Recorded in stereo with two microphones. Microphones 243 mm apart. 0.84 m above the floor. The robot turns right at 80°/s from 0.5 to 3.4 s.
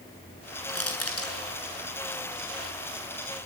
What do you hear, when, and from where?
0.7 s crushing: 65° left (ahead or behind), 8 m